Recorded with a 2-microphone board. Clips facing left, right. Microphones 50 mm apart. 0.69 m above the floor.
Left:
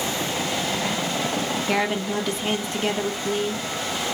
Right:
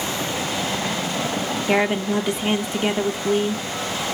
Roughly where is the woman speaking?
Centre.